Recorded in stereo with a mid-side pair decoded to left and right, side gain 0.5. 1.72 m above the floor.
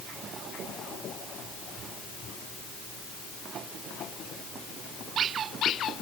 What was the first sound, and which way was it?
Only background noise.